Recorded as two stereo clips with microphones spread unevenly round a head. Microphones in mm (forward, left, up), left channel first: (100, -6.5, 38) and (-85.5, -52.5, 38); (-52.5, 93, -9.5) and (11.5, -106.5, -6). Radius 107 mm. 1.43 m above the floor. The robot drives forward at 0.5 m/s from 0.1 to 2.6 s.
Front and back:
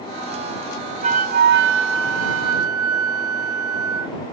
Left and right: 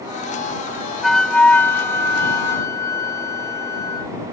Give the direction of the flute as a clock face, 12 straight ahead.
5 o'clock.